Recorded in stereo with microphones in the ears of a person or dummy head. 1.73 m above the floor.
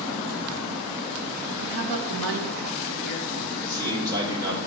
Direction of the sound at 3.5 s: 20° right (ahead or behind).